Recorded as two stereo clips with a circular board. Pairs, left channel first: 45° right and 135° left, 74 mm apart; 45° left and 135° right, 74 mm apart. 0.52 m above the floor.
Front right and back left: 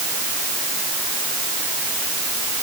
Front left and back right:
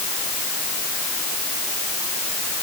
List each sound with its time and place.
Only background noise.